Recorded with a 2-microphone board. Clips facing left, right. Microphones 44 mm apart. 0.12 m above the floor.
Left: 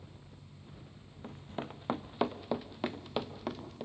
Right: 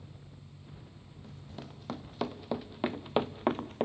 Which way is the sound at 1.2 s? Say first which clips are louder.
Left 6 dB; 40° left (ahead or behind).